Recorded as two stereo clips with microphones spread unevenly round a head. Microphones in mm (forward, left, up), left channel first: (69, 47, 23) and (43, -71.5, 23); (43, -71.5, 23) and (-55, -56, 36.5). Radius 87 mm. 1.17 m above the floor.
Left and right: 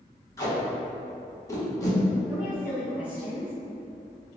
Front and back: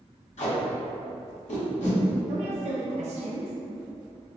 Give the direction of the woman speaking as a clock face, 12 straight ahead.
6 o'clock.